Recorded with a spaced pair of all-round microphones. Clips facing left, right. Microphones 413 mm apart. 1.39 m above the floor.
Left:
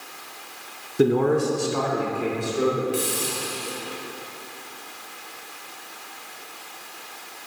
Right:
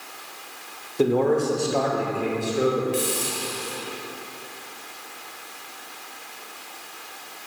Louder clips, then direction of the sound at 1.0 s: Left 1 dB; 30° left (ahead or behind).